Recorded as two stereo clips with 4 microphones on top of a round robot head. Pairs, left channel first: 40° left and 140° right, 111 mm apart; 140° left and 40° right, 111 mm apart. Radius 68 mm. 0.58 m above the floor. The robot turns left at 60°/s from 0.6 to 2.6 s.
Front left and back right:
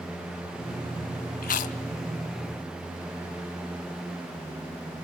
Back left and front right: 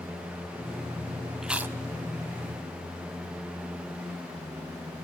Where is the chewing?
45° left, 0.6 m; by 1.8 s 25° left, 0.6 m.